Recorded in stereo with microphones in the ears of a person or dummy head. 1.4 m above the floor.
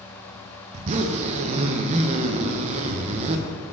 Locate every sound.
0.7 s a zipper: 40° right (ahead or behind), 0.7 m